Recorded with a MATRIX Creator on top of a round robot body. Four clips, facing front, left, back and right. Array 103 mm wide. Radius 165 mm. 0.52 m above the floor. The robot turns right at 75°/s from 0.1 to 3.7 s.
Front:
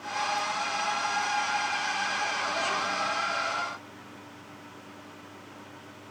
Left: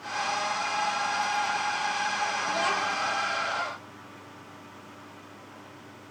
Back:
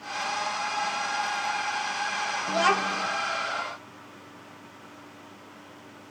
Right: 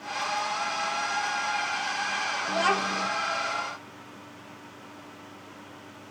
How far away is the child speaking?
About 2.0 m.